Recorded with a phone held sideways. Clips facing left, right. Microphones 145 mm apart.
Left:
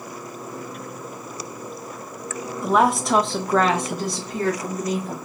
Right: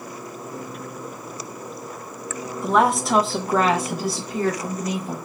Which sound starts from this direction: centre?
A woman speaking, at 2.6 s.